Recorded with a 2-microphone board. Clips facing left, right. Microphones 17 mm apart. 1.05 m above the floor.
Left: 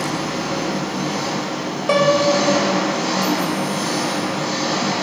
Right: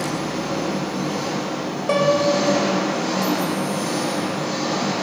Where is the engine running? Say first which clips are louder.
Left 2 dB; 30° left (ahead or behind), 5.5 m.